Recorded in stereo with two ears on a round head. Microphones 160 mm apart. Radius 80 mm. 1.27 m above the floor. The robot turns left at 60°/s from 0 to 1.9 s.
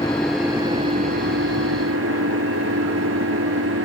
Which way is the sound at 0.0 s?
20° left.